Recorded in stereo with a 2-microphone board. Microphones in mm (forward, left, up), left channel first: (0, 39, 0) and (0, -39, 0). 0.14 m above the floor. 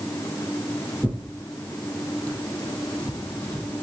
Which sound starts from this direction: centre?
Tearing paper, at 1.0 s.